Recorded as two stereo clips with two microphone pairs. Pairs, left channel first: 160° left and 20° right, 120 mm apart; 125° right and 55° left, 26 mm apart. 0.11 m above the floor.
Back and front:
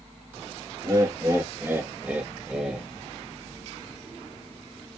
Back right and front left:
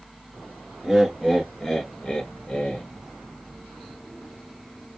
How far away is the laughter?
About 1.2 m.